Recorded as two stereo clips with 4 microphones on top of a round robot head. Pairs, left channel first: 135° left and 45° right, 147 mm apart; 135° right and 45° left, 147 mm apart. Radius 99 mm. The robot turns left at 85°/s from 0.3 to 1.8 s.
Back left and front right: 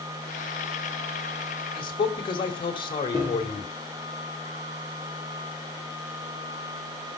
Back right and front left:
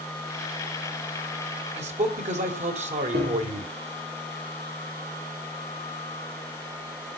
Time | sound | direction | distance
1.8 | a man speaking | 85° left | 3 m
3.1 | a piano | 25° left | 5 m